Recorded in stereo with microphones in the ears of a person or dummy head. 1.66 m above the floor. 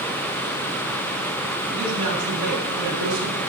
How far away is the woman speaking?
About 6.5 m.